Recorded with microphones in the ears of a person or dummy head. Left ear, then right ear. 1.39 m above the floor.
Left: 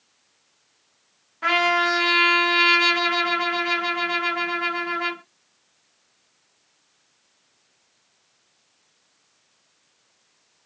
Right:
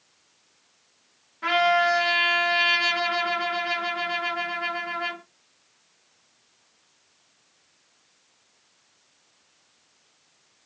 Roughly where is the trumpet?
Left.